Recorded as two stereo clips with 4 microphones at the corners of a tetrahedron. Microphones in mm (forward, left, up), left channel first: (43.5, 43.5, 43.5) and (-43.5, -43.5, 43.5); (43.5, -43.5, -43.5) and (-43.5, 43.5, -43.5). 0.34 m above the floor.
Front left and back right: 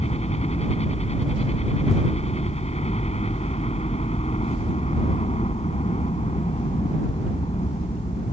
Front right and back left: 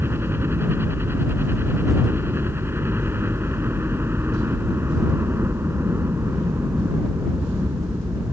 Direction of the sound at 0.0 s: 65° left.